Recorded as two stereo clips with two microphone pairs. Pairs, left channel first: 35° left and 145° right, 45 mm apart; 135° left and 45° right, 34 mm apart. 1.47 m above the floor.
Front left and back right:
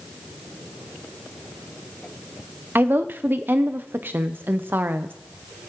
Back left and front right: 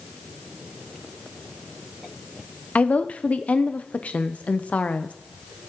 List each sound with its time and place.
2.8 s a woman speaking: straight behind, 0.5 m